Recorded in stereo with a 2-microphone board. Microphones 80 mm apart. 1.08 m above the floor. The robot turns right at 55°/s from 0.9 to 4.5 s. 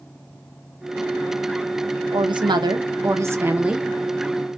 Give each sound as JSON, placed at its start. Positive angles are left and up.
{"t": 2.1, "sound": "a woman speaking", "azimuth_deg": -100, "distance_m": 0.6}